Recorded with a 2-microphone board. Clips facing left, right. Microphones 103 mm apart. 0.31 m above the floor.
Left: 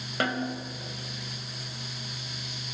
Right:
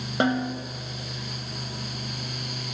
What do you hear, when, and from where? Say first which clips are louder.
0.2 s a snare drum: right 5 dB; 25° right (ahead or behind), 1.1 m